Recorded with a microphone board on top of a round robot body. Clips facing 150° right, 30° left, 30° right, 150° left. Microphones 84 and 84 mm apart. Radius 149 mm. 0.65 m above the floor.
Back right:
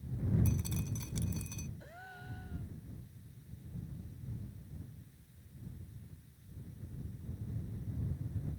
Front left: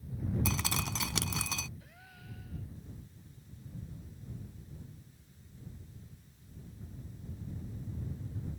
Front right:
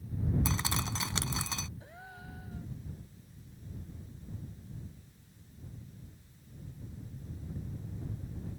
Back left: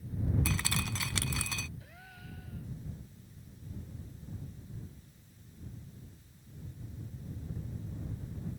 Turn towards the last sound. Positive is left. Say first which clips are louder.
# back right 5 dB, front right 3 dB
turn(degrees=-95)